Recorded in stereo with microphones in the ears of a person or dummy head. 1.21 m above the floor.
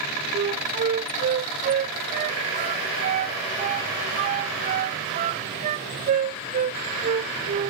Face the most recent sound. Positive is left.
turn(degrees=-40)  # may be behind; listen again after turning